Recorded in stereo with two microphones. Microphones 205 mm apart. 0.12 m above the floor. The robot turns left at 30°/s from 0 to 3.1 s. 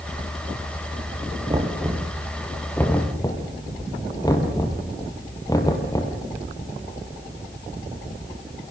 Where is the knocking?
25° right (ahead or behind), 2.5 m; by 6.2 s 20° left (ahead or behind), 2.5 m.